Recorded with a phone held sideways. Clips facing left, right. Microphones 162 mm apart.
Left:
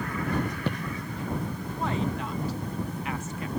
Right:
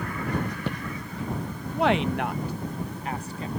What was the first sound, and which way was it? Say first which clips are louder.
A woman speaking: right 7 dB; 80° right.